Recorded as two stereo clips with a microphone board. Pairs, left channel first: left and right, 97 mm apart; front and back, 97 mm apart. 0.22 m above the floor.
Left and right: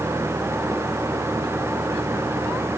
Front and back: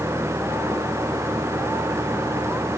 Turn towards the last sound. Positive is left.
No sound to turn to.